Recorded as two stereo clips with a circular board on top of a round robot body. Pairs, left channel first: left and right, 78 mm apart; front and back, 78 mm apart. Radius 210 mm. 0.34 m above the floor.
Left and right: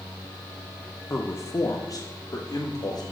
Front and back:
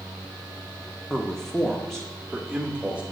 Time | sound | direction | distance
1.1 | a man speaking | 70° left | 1.4 m